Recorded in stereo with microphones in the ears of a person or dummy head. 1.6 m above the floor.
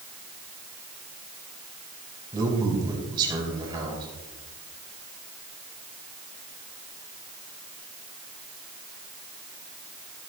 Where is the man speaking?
20° right (ahead or behind), 4.5 m.